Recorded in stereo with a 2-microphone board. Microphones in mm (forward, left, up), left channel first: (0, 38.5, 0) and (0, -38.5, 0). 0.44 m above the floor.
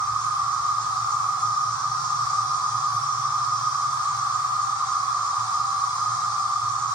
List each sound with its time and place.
0.0 s an insect: 65° left (ahead or behind), 3.5 m